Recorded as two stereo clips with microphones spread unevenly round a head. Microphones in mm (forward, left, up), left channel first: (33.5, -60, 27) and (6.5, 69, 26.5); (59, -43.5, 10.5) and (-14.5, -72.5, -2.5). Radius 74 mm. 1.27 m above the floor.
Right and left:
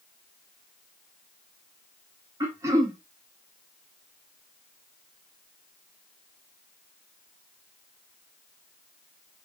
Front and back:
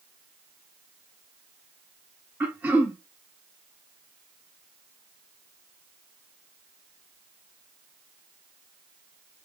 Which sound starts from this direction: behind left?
Throat clearing, at 2.4 s.